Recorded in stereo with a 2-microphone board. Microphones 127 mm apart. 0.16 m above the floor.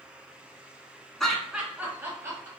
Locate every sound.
1.2 s laughter: 5° left (ahead or behind), 1.4 m; by 2.5 s 25° right (ahead or behind), 1.9 m